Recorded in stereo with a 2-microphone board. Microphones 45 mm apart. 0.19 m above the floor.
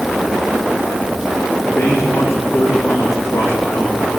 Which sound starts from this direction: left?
A man speaking, at 1.6 s.